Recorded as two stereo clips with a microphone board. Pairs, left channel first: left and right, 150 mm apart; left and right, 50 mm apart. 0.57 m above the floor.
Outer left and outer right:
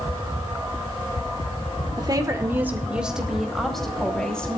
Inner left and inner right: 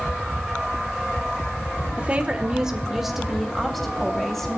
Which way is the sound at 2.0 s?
30° right (ahead or behind).